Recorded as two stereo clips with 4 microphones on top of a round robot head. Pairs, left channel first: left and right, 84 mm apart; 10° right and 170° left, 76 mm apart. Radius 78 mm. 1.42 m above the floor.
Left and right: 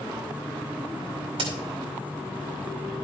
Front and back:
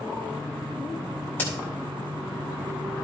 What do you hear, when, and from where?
1.4 s a crack: 75° right, 3.5 m